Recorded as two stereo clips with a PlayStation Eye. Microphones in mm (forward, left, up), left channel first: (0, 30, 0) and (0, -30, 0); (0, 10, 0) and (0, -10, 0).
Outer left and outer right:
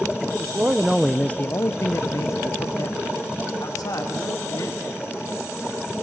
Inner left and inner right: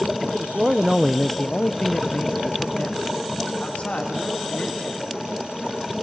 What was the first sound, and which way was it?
A man speaking, 40° right (ahead or behind).